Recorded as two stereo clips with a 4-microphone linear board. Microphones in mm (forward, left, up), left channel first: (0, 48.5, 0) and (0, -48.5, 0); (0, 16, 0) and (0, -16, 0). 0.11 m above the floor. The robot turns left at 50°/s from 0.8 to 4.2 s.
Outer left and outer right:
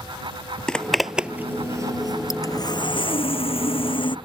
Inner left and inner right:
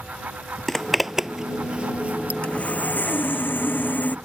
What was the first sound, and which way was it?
A zipper, 10° left (ahead or behind).